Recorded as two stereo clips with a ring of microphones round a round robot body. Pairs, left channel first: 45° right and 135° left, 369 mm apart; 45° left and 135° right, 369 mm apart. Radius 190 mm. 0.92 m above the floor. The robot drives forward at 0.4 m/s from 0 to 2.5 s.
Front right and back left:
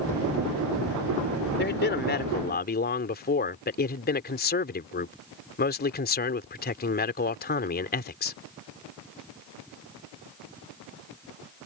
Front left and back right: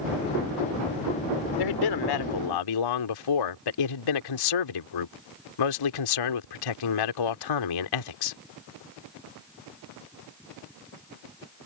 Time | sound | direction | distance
1.6 | a man speaking | 20° left | ?